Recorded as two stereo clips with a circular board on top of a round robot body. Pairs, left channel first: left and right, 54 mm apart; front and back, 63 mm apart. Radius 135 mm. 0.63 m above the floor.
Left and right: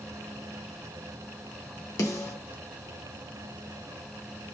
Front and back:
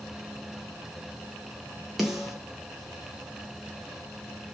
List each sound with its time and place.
2.0 s a snare drum: 95° left, 0.5 m